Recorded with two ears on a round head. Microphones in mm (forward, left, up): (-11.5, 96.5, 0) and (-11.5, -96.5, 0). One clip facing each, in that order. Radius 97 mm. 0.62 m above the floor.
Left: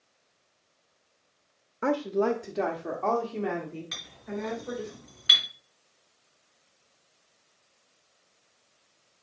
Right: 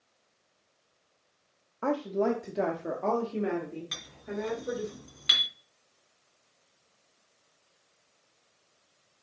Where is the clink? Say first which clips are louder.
Even; 50° right (ahead or behind), 3.5 m.